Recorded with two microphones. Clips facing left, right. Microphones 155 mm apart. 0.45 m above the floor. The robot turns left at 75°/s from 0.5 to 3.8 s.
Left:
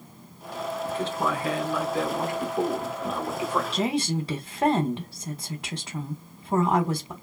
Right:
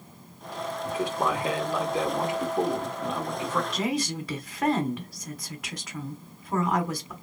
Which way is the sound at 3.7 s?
30° left (ahead or behind).